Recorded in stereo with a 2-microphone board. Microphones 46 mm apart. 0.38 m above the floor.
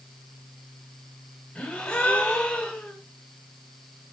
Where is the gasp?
20° left (ahead or behind), 1.8 m.